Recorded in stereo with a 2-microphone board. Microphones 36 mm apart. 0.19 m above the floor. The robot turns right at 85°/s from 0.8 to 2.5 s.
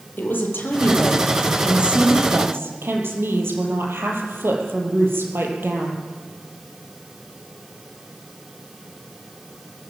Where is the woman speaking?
120° left, 6.5 m; by 6.0 s 95° right, 6.5 m.